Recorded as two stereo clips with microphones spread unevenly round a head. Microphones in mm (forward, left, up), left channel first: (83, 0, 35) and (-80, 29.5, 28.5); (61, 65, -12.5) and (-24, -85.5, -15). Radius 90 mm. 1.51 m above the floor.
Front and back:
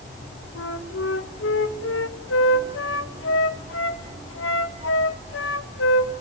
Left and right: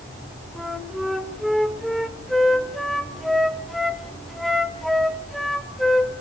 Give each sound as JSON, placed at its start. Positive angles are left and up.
{"t": 0.6, "sound": "a flute", "azimuth_deg": -30, "distance_m": 2.0}